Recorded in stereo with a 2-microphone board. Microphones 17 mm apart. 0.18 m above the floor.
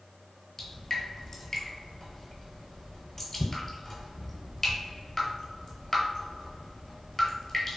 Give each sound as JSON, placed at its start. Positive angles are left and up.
{"t": 0.6, "sound": "dripping", "side_deg": 20, "distance_m": 0.8}